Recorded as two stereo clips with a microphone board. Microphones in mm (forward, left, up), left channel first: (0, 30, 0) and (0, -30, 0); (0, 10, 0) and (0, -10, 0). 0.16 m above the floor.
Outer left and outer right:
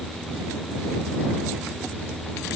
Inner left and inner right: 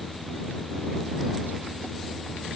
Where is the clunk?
No clunk in this recording.